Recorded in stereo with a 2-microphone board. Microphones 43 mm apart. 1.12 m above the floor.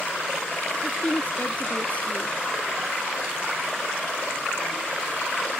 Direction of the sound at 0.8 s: 30° left (ahead or behind).